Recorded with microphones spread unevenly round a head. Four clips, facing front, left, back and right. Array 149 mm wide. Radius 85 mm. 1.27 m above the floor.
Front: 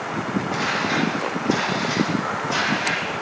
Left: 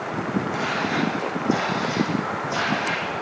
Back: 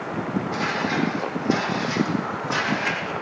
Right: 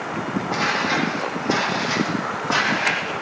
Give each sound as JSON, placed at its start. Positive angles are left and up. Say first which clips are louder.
{"t": 0.5, "sound": "footsteps", "louder": "right 2 dB, front 1 dB", "azimuth_deg": -65, "distance_m": 3.5}